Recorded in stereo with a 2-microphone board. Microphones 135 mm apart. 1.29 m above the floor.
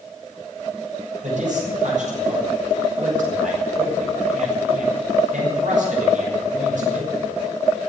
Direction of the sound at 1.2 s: 70° right (ahead or behind).